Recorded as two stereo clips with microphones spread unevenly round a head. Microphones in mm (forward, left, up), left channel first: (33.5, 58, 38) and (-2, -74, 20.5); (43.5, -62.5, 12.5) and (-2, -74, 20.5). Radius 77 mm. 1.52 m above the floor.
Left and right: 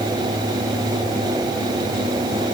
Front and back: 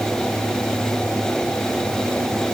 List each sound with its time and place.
Only background noise.